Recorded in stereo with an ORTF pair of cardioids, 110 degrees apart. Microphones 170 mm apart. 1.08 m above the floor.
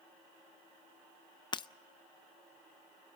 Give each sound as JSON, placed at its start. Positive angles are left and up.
{"t": 1.5, "sound": "breaking glass", "azimuth_deg": 25, "distance_m": 0.5}